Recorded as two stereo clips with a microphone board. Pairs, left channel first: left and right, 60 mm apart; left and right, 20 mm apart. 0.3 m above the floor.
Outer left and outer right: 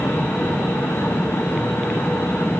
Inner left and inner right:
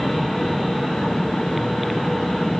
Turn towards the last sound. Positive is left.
No sound to turn to.